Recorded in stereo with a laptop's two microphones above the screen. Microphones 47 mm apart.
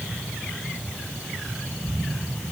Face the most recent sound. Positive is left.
No sound to turn to.